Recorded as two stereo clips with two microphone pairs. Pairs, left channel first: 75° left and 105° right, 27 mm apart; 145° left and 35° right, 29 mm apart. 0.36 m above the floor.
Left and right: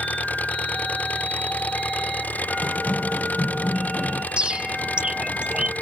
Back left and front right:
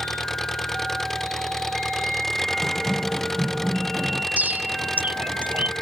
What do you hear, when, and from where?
0.0 s an engine running: 65° left
2.6 s running footsteps: 50° left; by 4.3 s 10° left
4.4 s a bird: 55° right